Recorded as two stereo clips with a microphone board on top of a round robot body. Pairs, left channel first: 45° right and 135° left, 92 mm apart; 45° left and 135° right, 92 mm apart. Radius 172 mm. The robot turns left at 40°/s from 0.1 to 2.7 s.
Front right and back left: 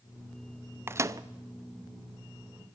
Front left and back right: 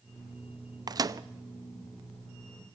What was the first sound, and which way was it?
A microwave, 165° right.